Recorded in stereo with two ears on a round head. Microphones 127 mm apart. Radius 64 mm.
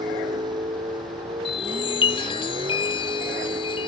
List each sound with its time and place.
0.0 s a vehicle: 30° right (ahead or behind); by 3.9 s 40° right (ahead or behind)
1.4 s a chime: 40° left (ahead or behind)